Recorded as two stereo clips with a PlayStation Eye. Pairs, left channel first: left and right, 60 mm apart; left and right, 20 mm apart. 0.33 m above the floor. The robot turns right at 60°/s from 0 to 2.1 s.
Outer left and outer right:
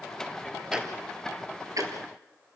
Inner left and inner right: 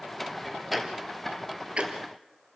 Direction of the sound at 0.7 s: 15° right (ahead or behind).